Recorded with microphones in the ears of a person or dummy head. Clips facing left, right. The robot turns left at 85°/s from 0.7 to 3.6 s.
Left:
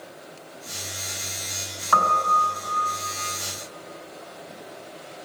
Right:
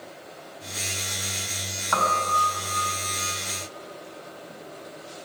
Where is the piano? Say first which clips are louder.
Left 2 dB; centre (ahead or behind), 3 m; by 2.8 s 65° left (ahead or behind), 3 m.